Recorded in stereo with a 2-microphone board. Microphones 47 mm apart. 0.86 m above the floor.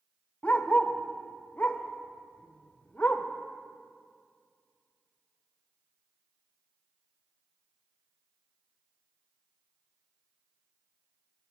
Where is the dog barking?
30° left (ahead or behind), 0.8 m.